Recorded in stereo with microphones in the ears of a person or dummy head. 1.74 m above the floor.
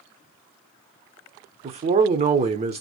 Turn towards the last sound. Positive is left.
turn(degrees=-35)  # may be behind; listen again after turning